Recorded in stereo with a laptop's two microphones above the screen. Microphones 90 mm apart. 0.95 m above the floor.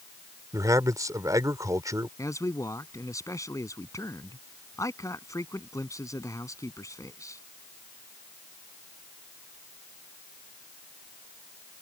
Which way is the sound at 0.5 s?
40° right (ahead or behind).